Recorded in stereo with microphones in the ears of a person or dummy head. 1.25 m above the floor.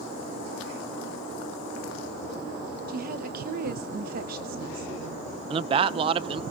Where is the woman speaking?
45° right (ahead or behind), 0.9 m.